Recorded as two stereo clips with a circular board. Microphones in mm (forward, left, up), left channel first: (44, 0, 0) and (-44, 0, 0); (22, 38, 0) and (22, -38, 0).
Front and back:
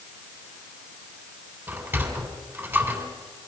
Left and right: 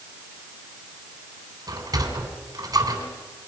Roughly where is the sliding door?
Behind right.